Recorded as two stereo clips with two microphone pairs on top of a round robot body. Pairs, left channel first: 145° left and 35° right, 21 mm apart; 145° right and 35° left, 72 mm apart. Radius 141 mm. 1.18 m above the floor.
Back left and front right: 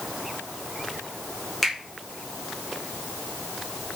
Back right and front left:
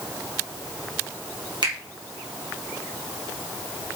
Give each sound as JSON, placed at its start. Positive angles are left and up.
{"t": 1.6, "sound": "a finger snap", "azimuth_deg": 50, "distance_m": 3.5}